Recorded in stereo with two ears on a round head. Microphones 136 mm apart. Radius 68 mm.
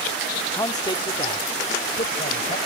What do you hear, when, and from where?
0.6 s a man speaking: 15° left (ahead or behind); by 2.6 s 40° left (ahead or behind)